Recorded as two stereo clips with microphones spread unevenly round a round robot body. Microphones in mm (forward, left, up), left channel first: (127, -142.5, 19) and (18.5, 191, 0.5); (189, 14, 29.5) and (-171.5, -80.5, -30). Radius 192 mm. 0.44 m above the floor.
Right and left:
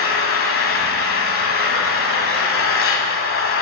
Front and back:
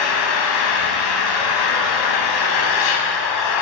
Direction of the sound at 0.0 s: 15° right.